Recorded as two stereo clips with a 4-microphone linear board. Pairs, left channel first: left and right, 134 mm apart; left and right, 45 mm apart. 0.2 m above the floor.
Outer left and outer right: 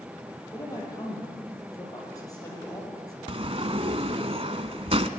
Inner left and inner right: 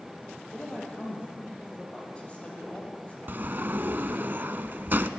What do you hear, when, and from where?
0.5 s a woman speaking: 25° left (ahead or behind), 6.5 m
3.3 s a sliding door: 45° right (ahead or behind), 0.9 m